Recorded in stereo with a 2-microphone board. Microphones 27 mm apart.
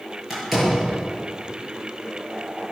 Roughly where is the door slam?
Centre.